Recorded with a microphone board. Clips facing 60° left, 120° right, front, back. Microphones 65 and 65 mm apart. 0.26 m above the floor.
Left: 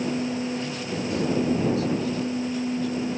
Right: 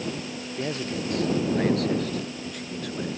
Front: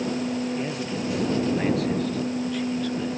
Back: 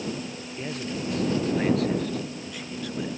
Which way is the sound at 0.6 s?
85° right.